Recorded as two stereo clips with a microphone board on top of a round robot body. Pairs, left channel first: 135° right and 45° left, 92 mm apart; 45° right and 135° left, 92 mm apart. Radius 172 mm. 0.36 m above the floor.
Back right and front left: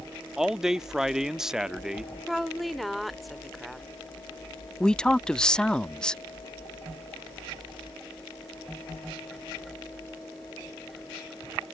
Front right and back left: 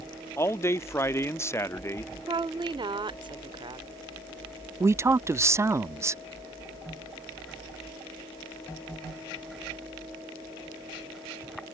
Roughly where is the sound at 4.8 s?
Behind left.